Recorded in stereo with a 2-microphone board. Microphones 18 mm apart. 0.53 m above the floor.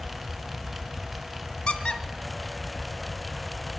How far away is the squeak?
About 1.0 m.